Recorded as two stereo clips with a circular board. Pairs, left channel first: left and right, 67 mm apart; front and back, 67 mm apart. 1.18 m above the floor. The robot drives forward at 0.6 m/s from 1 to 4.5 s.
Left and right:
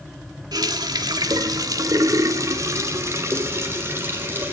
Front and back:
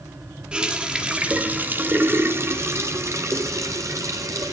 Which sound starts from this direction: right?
A running tap, at 0.5 s.